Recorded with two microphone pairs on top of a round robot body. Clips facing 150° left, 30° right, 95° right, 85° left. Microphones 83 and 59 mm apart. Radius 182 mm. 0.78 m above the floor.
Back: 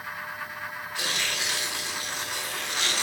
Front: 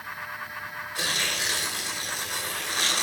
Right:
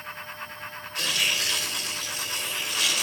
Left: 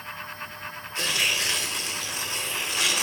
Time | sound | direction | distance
0.9 | tearing paper | 20° left | 0.7 m